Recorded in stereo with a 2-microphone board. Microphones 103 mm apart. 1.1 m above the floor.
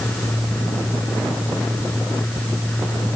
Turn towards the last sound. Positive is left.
No sound to turn to.